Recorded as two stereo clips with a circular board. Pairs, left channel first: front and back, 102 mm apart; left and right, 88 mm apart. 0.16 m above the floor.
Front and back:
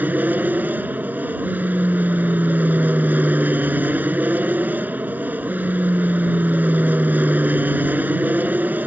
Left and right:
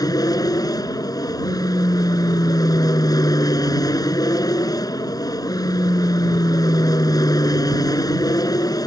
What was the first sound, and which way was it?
An aircraft, 110° left.